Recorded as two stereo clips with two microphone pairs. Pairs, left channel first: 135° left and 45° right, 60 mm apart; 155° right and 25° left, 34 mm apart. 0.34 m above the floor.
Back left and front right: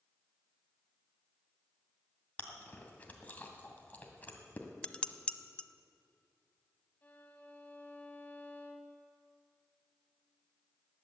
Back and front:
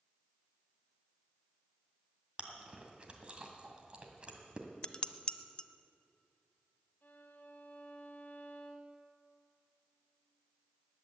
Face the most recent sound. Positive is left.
turn(degrees=-170)